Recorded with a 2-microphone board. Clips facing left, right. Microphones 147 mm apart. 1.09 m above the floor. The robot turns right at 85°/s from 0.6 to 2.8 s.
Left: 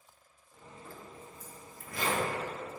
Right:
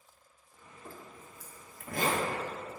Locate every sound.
0.8 s a zipper: 35° right (ahead or behind), 1.1 m; by 2.3 s 25° right (ahead or behind), 1.1 m